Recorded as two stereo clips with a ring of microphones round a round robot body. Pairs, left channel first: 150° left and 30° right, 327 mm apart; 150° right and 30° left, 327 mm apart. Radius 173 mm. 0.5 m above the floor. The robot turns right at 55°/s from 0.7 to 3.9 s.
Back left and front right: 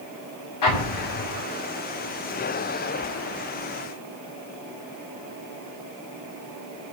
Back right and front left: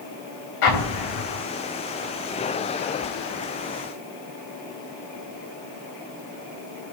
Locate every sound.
0.6 s an explosion: 175° right, 5.5 m; by 1.4 s 135° right, 5.5 m